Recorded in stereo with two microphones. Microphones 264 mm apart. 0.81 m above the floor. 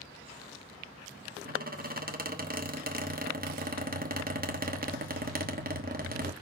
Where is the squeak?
35° right (ahead or behind), 1.1 m.